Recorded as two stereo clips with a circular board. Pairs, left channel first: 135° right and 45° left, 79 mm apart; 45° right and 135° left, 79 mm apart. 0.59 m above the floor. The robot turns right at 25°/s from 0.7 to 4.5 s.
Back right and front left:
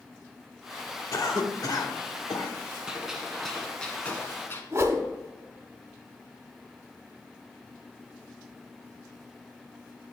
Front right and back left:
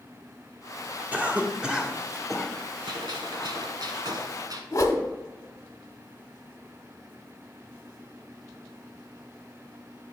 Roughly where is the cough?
Behind.